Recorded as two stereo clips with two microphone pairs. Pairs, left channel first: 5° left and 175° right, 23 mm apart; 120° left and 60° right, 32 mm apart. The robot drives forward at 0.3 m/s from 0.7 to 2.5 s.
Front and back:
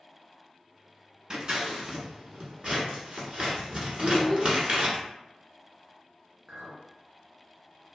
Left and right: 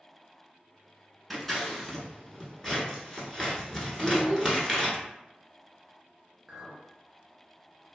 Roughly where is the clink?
Behind right.